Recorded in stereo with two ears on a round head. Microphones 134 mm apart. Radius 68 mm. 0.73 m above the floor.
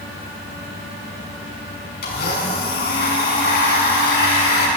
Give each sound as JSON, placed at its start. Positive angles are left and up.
{"t": 2.0, "sound": "a blender", "side_deg": 80, "distance_m": 6.0}